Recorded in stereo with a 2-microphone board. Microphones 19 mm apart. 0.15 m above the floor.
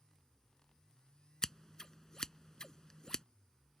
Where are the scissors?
40° left (ahead or behind).